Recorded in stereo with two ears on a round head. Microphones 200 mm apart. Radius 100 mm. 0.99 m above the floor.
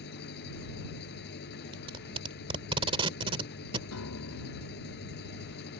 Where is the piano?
80° left.